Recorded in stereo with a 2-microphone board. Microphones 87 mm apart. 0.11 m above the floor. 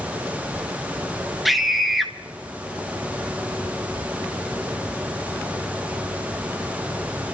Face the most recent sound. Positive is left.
turn(degrees=0)  # may be behind; listen again after turning